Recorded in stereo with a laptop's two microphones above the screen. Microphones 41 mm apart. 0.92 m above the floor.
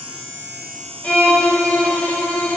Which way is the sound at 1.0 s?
30° left (ahead or behind).